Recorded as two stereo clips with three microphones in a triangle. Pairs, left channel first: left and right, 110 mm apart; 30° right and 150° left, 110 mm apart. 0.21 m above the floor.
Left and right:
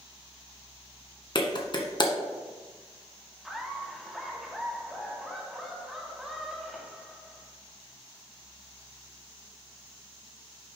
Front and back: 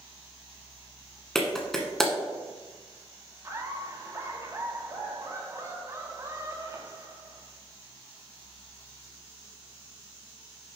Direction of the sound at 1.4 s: 55° left.